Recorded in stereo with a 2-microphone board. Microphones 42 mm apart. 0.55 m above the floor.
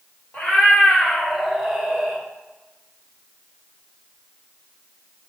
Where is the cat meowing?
40° left (ahead or behind), 1.5 m; by 2.2 s 40° right (ahead or behind), 1.0 m.